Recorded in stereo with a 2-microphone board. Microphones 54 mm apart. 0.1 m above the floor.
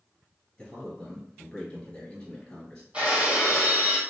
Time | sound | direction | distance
0.6 | a man speaking | 15° left (ahead or behind) | 1.4 m
2.9 | breaking glass | 20° right (ahead or behind) | 1.0 m